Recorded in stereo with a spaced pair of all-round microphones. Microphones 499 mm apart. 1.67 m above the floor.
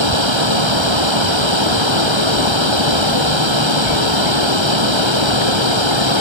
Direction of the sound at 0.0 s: 60° right (ahead or behind).